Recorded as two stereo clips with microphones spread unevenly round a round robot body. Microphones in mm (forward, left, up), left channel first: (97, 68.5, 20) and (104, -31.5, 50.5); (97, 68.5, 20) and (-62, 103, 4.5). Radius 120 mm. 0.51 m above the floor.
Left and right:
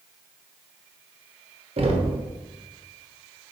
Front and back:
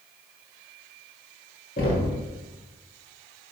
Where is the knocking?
60° right, 1.3 m.